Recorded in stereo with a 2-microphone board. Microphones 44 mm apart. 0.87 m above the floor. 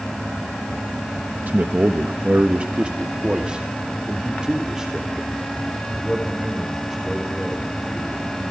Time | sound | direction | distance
1.5 | a man speaking | 45° right (ahead or behind) | 1.1 m